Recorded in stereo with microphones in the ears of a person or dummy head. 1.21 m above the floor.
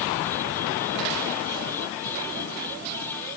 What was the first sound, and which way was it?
Only background noise.